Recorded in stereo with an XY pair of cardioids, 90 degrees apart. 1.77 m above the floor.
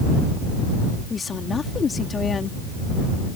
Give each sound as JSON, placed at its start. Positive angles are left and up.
{"t": 1.1, "sound": "a woman speaking", "azimuth_deg": 40}